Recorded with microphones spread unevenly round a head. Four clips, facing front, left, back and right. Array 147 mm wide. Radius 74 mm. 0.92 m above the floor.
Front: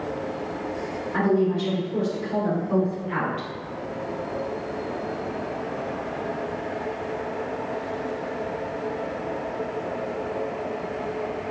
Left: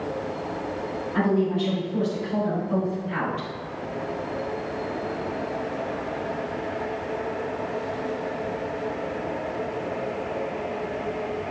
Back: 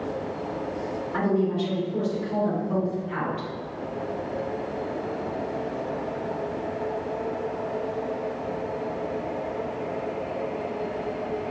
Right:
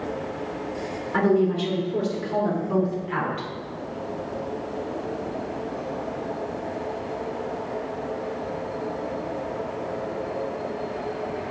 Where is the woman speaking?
60° right, 2.5 m; by 3.5 s 30° right, 2.5 m.